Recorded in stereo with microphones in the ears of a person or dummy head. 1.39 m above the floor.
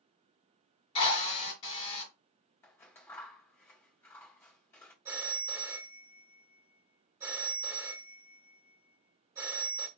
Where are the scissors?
15° left (ahead or behind), 1.7 m.